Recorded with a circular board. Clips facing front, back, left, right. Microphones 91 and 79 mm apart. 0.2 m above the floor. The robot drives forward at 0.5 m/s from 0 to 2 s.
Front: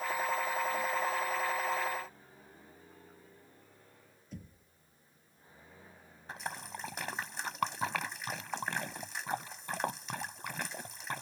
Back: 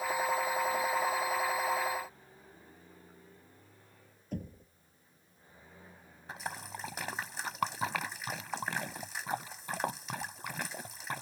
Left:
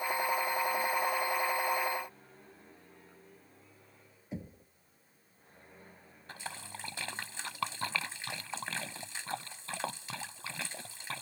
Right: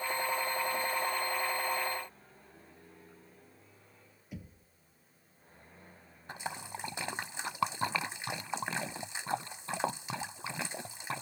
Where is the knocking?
150° left.